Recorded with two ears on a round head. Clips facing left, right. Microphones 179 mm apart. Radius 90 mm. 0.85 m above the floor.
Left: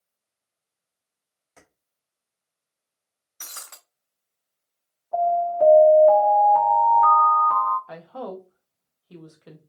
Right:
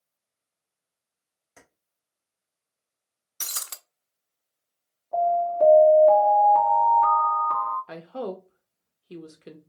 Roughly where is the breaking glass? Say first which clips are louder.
Right 2 dB; right.